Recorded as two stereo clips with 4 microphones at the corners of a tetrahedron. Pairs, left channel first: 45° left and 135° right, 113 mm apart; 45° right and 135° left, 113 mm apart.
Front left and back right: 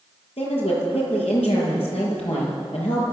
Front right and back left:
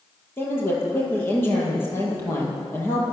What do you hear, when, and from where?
0.4 s a woman speaking: 25° left, 8 m